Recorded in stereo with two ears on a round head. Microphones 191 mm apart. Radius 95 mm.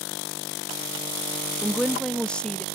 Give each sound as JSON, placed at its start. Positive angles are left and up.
{"t": 1.6, "sound": "a woman speaking", "side_deg": -5}